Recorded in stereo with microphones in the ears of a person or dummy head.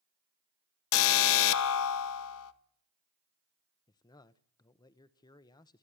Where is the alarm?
75° left (ahead or behind), 1.6 m.